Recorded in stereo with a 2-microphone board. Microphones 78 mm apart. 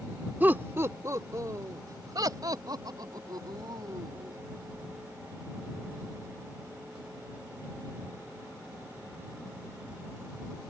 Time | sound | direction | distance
0.4 | laughter | 20° right (ahead or behind) | ?